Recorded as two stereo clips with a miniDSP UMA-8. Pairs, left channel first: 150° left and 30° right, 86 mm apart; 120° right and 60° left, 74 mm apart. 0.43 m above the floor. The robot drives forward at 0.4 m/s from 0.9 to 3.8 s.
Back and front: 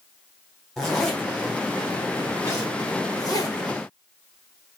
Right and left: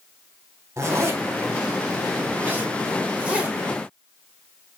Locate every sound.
0.8 s a zipper: 65° left, 1.4 m; by 3.6 s 135° left, 1.5 m